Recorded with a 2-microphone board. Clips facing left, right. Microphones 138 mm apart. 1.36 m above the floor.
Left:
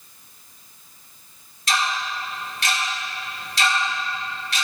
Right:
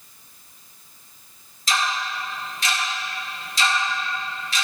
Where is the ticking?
65° left (ahead or behind), 2 m.